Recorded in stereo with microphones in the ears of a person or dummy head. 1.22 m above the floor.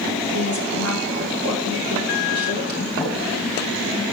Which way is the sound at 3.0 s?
10° left (ahead or behind).